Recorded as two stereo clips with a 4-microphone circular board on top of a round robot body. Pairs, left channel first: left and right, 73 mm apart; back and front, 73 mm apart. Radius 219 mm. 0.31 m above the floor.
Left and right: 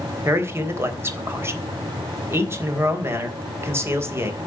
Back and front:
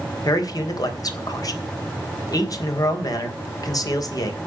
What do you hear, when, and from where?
0.2 s a man speaking: 145° right, 3.5 m